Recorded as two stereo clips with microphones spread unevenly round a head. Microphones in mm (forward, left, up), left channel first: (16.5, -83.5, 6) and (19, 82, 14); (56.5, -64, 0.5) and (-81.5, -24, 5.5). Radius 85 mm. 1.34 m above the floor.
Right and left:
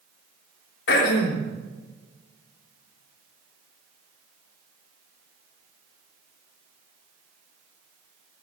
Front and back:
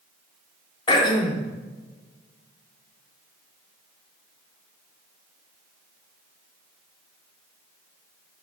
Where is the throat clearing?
75° right, 3 m.